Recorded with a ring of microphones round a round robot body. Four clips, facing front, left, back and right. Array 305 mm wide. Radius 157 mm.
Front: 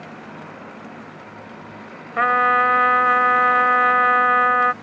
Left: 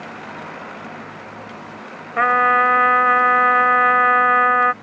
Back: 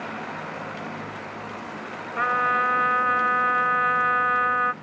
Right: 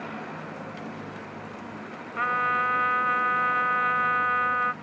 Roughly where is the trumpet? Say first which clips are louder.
Left 10 dB, front 6 dB; ahead left.